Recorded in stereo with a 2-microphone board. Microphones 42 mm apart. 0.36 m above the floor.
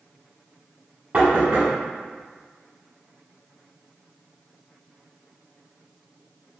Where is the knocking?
30° right (ahead or behind), 1.1 m.